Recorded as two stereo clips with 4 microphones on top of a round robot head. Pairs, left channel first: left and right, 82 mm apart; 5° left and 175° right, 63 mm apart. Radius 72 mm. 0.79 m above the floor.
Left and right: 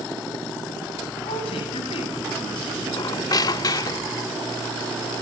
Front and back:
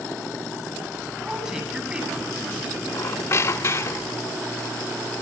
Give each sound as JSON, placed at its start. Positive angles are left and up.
{"t": 1.2, "sound": "a woman speaking", "azimuth_deg": 105, "distance_m": 8.0}
{"t": 2.9, "sound": "a squeak", "azimuth_deg": 50, "distance_m": 0.6}